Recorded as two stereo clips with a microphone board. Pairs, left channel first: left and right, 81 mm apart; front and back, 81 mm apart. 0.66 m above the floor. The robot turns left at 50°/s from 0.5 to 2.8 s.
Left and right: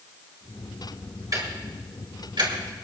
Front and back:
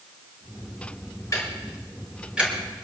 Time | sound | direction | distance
1.3 | ticking | 50° right | 5 m